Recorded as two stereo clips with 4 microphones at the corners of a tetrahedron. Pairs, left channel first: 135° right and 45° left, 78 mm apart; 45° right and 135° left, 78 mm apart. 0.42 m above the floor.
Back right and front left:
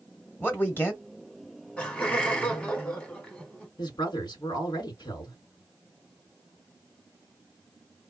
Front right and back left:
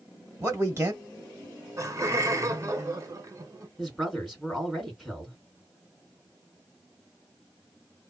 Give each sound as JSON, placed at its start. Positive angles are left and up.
{"t": 0.4, "sound": "a man speaking", "azimuth_deg": 175, "distance_m": 1.5}
{"t": 1.8, "sound": "laughter", "azimuth_deg": 155, "distance_m": 1.3}
{"t": 3.8, "sound": "a woman speaking", "azimuth_deg": -135, "distance_m": 1.7}